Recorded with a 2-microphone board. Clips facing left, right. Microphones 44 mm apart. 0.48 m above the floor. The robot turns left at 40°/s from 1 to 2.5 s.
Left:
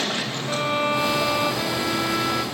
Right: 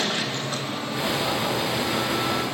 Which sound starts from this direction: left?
A violin, at 0.5 s.